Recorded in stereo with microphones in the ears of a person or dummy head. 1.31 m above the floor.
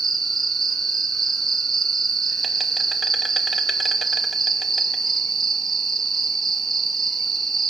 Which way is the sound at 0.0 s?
10° left (ahead or behind).